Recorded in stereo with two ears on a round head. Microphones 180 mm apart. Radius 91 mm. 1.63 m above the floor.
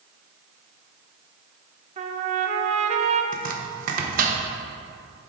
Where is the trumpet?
35° right (ahead or behind), 0.7 m.